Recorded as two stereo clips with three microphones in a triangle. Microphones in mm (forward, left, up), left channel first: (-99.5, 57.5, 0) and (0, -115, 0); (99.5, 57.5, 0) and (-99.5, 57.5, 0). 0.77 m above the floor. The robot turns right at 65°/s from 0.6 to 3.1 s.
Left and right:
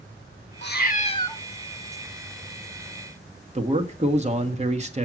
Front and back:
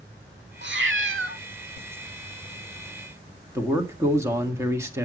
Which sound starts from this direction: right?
A man speaking, at 3.5 s.